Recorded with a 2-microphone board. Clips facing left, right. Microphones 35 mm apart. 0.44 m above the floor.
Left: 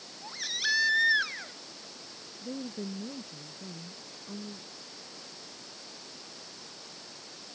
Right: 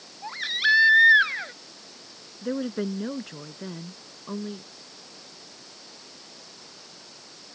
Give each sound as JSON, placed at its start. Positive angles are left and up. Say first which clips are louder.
{"t": 0.2, "sound": "a baby crying", "louder": "right 9 dB", "side_deg": -35}
{"t": 2.4, "sound": "a woman speaking", "louder": "right 10 dB", "side_deg": -65}